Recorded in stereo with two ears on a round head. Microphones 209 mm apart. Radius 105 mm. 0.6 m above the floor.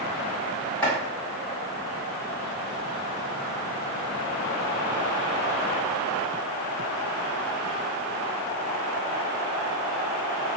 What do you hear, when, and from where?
0.8 s chopping: 5° left (ahead or behind), 1.9 m